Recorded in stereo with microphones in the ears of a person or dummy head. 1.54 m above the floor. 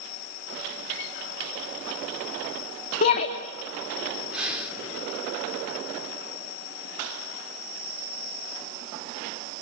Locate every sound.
3.0 s a shout: 40° left (ahead or behind), 2.5 m
4.3 s breathing: 5° right (ahead or behind), 3.5 m